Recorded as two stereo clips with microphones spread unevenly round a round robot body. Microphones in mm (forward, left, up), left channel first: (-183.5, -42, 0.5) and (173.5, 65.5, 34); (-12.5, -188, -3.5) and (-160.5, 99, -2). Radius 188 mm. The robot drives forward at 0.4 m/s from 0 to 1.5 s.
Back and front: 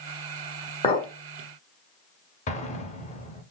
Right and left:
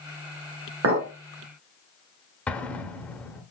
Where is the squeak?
I don't hear a squeak.